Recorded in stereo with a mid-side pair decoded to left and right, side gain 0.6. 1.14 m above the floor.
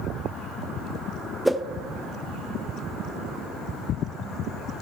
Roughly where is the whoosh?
Ahead.